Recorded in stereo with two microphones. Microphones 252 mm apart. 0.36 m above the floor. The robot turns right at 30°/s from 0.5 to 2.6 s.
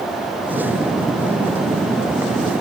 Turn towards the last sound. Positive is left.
No sound to turn to.